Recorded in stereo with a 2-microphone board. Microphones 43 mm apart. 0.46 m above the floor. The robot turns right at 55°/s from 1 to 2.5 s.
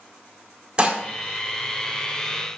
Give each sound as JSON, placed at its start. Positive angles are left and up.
{"t": 0.8, "sound": "dishes clattering", "side_deg": -25, "distance_m": 0.8}